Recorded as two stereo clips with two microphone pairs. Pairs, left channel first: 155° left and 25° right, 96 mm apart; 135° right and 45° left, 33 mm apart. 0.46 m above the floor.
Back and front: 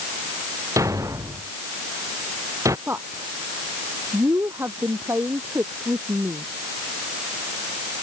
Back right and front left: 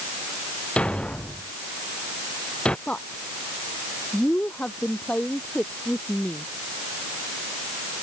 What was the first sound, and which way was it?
A thud, 80° right.